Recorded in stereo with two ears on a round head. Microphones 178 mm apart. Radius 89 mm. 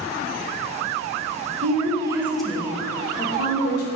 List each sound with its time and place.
1.6 s a woman speaking: 35° right (ahead or behind), 1.4 m; by 3.9 s 50° left (ahead or behind), 1.9 m